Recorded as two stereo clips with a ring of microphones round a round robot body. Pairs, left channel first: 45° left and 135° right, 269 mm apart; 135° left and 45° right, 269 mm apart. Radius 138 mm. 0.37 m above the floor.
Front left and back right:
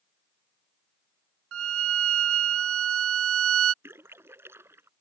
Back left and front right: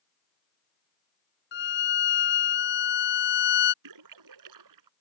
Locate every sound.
1.5 s a violin: 175° right
3.8 s a splash: 55° right